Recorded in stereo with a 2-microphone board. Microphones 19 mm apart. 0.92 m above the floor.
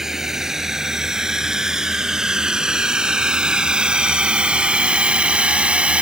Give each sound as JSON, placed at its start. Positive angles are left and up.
{"t": 0.0, "sound": "a drone", "side_deg": -25}